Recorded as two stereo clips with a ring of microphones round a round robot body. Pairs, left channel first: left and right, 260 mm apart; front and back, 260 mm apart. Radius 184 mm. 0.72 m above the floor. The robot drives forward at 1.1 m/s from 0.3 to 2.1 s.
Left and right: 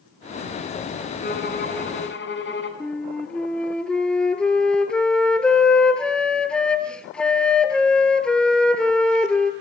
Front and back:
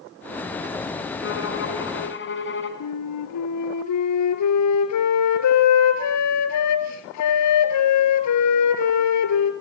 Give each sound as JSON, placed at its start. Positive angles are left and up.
{"t": 1.2, "sound": "a violin", "azimuth_deg": 35, "distance_m": 5.5}
{"t": 2.8, "sound": "a flute", "azimuth_deg": 5, "distance_m": 2.5}